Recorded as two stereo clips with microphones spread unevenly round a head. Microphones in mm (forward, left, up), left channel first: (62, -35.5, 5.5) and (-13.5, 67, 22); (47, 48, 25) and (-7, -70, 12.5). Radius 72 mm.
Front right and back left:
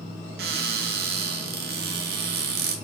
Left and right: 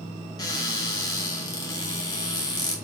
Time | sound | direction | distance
0.4 | a cupboard door | 130° left | 3 m